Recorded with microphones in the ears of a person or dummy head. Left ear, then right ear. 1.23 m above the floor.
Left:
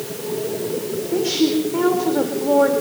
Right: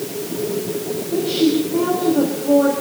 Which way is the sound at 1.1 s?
65° left (ahead or behind).